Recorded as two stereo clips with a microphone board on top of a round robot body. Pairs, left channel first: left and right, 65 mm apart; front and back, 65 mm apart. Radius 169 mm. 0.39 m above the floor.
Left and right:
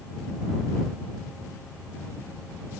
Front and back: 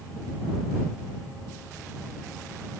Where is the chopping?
I don't hear chopping.